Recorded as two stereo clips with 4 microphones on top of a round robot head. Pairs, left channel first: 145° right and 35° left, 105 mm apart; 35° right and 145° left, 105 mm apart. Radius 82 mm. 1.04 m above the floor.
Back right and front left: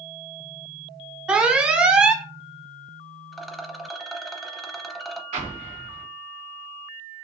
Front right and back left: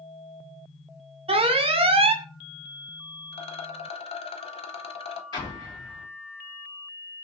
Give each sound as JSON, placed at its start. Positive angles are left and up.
{"t": 1.3, "sound": "an alarm", "azimuth_deg": 115, "distance_m": 0.6}
{"t": 3.3, "sound": "a rattle", "azimuth_deg": -55, "distance_m": 0.6}
{"t": 5.3, "sound": "an explosion", "azimuth_deg": 15, "distance_m": 1.3}